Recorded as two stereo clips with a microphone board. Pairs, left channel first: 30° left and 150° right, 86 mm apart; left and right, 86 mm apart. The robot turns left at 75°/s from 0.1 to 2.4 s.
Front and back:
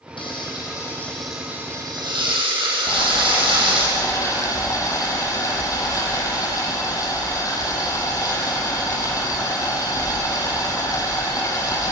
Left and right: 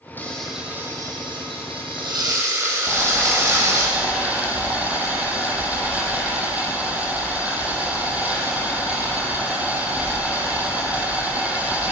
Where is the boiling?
20° right, 5 m.